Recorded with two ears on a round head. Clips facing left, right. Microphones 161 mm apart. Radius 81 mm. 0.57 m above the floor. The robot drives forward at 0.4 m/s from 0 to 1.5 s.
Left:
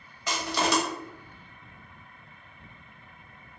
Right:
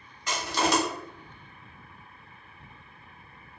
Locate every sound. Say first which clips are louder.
0.3 s crushing: right 1 dB; 60° left (ahead or behind), 0.9 m; by 0.8 s 75° left (ahead or behind), 0.8 m